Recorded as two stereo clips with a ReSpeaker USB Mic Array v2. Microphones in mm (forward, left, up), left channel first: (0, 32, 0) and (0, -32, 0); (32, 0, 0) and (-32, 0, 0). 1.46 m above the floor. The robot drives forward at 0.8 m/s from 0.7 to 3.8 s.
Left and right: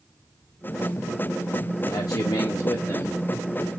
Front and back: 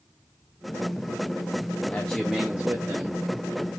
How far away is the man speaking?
About 0.6 m.